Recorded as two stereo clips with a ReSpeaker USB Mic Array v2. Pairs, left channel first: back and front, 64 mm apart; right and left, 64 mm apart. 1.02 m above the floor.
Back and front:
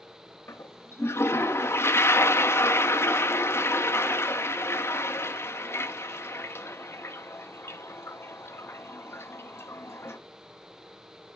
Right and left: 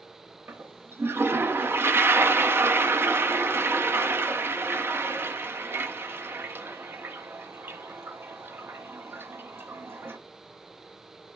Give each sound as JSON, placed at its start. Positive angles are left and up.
{"t": 0.5, "sound": "a toilet flushing", "azimuth_deg": 135, "distance_m": 0.5}